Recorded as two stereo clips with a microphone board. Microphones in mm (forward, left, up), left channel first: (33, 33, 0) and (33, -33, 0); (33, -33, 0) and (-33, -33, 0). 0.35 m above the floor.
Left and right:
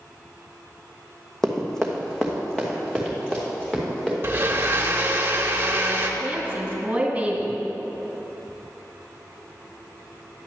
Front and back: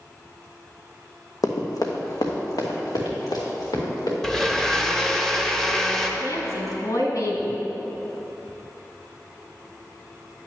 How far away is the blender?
About 0.8 m.